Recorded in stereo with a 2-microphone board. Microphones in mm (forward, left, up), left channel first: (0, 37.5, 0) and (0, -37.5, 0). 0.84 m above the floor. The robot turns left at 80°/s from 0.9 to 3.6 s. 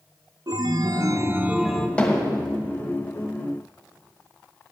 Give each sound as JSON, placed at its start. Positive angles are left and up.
{"t": 0.5, "sound": "a chime", "azimuth_deg": -115, "distance_m": 0.7}
{"t": 2.0, "sound": "hammering", "side_deg": 15, "distance_m": 2.0}